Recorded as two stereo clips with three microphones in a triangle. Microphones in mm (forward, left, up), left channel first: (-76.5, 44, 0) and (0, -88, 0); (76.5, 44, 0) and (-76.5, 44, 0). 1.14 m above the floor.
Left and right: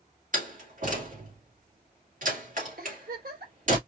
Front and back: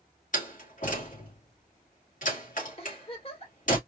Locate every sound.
0.3 s a door slam: 30° right, 2.5 m
2.8 s a giggle: 50° right, 2 m